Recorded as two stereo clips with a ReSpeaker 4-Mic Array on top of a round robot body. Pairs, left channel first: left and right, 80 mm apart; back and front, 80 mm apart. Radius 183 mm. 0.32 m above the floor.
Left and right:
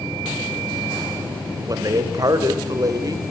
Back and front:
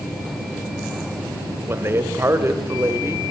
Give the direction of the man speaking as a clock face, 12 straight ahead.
2 o'clock.